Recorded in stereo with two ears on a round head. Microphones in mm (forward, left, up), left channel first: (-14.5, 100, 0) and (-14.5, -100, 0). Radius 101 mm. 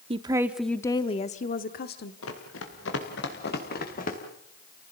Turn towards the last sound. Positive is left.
turn(degrees=40)  # may be behind; listen again after turning